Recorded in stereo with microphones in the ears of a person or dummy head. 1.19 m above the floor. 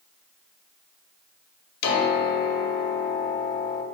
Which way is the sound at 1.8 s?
55° left (ahead or behind).